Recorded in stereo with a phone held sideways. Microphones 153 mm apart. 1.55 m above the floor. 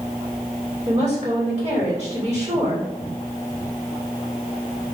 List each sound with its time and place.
0.8 s a woman speaking: 35° right (ahead or behind), 2.0 m